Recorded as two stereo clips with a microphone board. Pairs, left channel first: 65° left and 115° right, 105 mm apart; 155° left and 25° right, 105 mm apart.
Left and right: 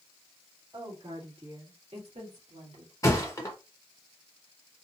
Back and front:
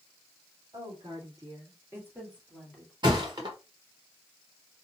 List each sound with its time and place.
0.7 s a woman speaking: 65° right, 2.5 m; by 2.9 s 115° right, 2 m
3.0 s a thud: 15° left, 1.1 m